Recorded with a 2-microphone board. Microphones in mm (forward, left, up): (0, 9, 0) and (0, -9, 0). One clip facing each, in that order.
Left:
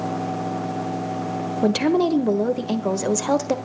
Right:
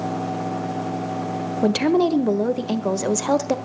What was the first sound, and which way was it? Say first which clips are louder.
A woman speaking: right 1 dB; centre (ahead or behind).